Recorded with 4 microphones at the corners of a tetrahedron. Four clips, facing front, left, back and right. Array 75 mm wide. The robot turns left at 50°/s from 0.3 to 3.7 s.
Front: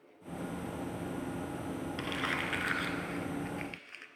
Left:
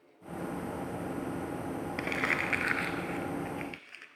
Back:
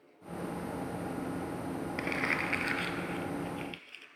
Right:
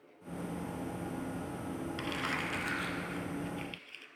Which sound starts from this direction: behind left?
Crumpling, at 2.0 s.